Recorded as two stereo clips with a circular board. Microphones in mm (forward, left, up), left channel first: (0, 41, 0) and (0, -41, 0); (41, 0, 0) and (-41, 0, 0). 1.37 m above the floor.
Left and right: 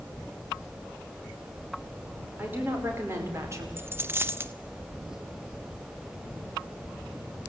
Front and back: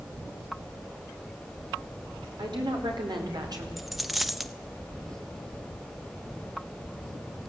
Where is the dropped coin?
90° right, 0.7 m.